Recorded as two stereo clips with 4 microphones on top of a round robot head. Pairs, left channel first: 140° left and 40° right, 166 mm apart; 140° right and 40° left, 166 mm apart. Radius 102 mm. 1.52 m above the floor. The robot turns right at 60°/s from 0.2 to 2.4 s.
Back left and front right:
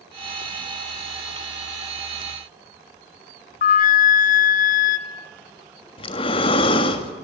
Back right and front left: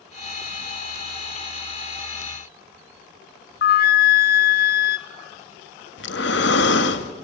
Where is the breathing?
160° right, 1.6 m.